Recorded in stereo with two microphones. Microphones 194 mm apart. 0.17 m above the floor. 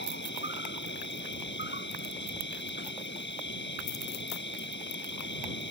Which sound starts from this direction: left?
An insect, at 0.0 s.